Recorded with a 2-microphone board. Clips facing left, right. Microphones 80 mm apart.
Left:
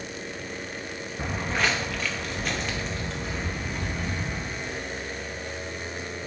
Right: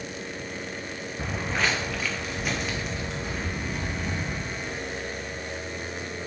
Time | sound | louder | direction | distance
1.2 | footsteps | left 1 dB | 10° left (ahead or behind) | 0.5 m